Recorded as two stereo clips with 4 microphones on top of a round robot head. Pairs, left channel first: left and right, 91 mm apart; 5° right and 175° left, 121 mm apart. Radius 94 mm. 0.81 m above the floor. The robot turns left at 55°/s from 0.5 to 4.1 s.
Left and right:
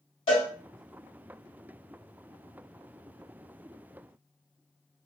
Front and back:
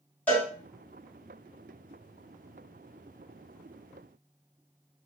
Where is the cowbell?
70° left, 0.9 m.